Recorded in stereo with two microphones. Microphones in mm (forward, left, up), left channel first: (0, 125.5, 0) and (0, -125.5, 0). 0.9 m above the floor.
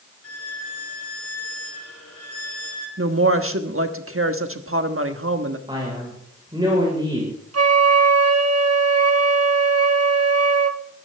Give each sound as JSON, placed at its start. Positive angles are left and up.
{"t": 0.2, "sound": "a violin", "side_deg": 70, "distance_m": 3.5}
{"t": 3.0, "sound": "a woman speaking", "side_deg": -60, "distance_m": 1.3}
{"t": 5.7, "sound": "a man speaking", "side_deg": -20, "distance_m": 4.5}
{"t": 7.5, "sound": "a flute", "side_deg": -75, "distance_m": 1.3}